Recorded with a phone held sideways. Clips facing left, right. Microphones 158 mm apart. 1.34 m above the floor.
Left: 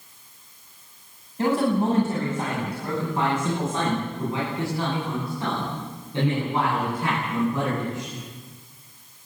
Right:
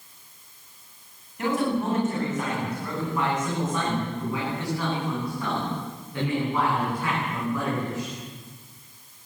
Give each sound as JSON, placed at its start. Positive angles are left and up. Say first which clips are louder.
{"t": 1.4, "sound": "a man speaking", "louder": "left 3 dB", "side_deg": 35, "distance_m": 8.5}